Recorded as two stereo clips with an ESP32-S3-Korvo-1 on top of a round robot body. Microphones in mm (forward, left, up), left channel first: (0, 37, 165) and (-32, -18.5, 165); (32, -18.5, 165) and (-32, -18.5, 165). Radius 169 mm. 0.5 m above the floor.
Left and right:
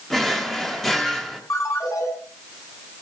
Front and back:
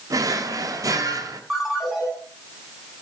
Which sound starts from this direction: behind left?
A drawer, at 0.1 s.